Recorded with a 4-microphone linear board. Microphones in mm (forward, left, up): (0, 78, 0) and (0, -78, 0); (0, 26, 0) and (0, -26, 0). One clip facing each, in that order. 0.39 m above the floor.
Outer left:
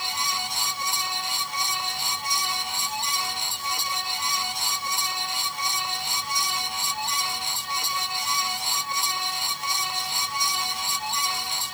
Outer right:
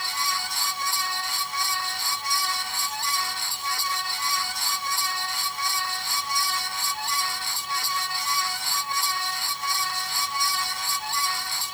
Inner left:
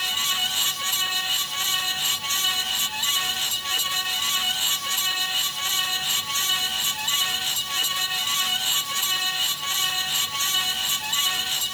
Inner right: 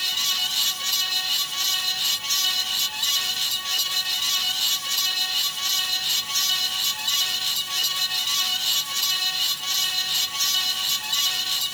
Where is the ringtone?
I don't hear a ringtone.